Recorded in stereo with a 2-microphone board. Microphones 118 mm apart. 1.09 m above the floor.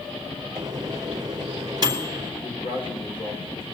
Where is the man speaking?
50° left (ahead or behind), 4 m.